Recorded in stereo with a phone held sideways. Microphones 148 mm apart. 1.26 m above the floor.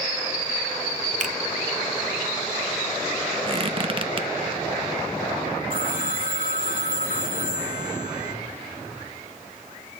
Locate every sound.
1.2 s a finger snap: 60° right (ahead or behind), 0.8 m
3.5 s a squeak: 40° right (ahead or behind), 0.7 m
5.7 s a phone ringing: 65° left (ahead or behind), 3 m